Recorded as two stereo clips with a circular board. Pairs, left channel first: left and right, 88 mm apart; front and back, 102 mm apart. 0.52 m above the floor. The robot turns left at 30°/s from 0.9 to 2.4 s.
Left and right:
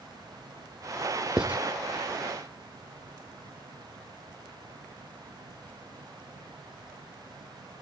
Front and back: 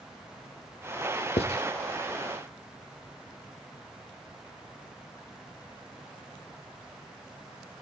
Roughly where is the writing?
Ahead.